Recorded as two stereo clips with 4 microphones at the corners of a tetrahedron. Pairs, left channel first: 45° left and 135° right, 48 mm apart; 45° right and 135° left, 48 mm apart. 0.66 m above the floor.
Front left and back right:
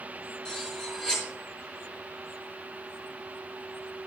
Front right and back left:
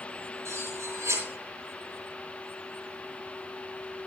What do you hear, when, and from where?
0.5 s cutlery clinking: 125° left, 5.5 m